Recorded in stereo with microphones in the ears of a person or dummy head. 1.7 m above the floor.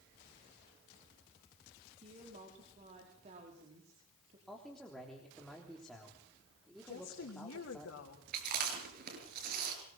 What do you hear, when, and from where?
2.0 s a woman speaking: 35° right (ahead or behind), 5 m
4.5 s a man speaking: centre (ahead or behind), 3.5 m
6.9 s a woman speaking: 80° left, 4 m
8.3 s chewing: 55° right (ahead or behind), 6 m